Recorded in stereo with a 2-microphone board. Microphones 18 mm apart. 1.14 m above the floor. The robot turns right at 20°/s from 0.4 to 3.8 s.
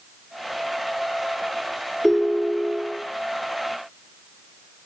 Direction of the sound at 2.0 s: 25° left (ahead or behind).